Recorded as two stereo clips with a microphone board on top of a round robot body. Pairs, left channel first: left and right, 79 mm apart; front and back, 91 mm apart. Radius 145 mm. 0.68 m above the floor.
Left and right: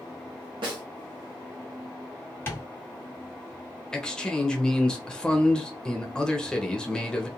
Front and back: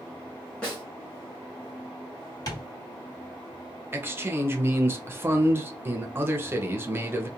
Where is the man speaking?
155° left, 0.8 m.